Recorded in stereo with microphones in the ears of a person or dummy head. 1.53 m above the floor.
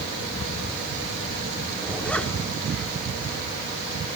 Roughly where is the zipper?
Centre.